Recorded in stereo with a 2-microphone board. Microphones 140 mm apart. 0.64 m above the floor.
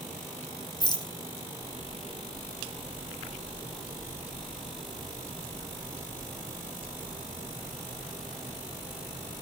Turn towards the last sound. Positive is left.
turn(degrees=30)  # may be behind; listen again after turning